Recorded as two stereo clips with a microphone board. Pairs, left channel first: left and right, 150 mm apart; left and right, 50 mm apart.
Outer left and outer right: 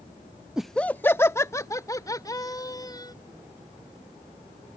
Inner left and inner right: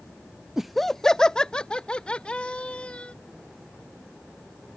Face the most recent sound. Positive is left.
turn(degrees=25)  # may be behind; listen again after turning